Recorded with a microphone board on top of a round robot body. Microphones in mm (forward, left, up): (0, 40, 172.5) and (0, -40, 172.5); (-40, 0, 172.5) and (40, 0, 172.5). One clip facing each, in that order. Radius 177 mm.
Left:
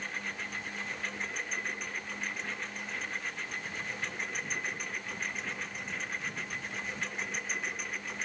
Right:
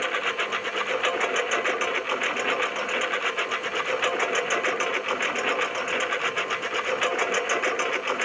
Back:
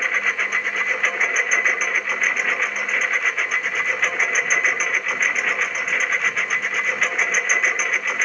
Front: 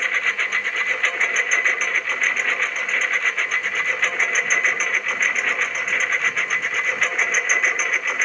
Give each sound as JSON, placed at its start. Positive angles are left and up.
{"t": 0.0, "sound": "a lawn mower", "azimuth_deg": -95}